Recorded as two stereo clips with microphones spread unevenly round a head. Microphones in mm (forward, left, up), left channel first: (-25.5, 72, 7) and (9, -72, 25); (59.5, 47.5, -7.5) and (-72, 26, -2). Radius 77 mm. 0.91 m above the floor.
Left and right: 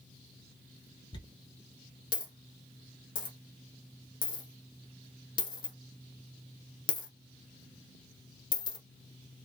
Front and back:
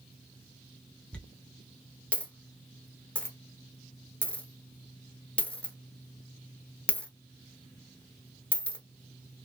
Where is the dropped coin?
85° left, 0.9 m.